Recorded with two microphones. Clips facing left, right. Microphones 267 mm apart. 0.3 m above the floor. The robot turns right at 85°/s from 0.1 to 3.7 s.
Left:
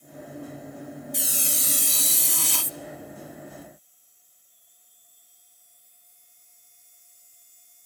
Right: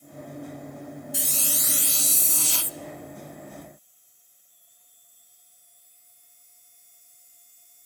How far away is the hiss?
About 0.5 m.